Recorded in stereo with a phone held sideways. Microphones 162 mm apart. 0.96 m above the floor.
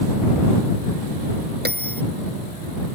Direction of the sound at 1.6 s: 80° right.